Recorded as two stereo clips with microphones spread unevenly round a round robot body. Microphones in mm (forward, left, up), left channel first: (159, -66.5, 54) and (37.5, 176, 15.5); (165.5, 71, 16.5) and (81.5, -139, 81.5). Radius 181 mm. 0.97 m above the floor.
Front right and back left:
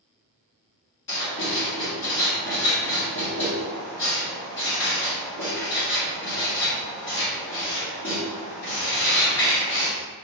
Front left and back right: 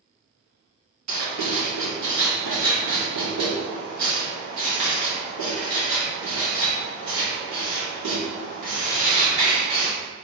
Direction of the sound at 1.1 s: 125° right.